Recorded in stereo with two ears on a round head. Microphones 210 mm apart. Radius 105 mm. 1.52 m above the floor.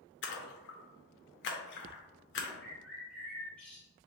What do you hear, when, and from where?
0.2 s a splash: 50° left (ahead or behind), 0.6 m
2.6 s a bird: 5° left (ahead or behind), 1.3 m